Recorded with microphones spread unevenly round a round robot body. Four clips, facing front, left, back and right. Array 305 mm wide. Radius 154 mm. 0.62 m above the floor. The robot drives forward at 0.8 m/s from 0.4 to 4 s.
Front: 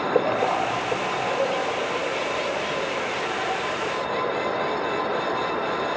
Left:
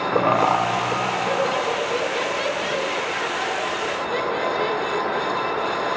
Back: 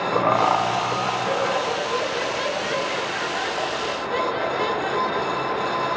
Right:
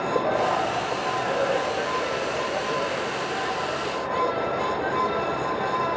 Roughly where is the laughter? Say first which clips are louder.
Left 5 dB, back 3 dB; behind left.